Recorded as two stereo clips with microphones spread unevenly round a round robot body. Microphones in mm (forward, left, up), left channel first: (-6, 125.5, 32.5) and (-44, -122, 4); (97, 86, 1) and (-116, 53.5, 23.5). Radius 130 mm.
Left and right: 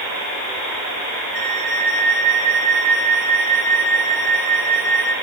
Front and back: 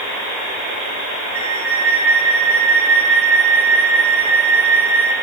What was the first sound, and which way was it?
A flute, 145° right.